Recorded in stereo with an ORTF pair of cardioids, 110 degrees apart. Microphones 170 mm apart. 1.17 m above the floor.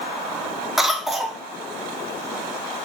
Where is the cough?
Straight ahead, 1.1 m.